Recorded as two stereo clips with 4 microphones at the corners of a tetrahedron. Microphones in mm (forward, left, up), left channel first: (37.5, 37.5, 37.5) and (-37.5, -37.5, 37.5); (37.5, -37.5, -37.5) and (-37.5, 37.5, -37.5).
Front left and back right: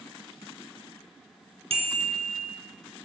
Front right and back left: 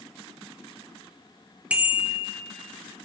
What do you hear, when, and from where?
1.7 s a bicycle bell: 150° right, 2.5 m